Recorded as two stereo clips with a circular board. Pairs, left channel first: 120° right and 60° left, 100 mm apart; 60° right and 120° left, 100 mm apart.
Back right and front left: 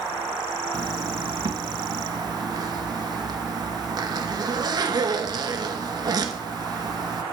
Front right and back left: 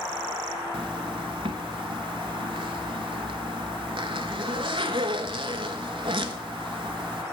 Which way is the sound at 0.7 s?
100° left.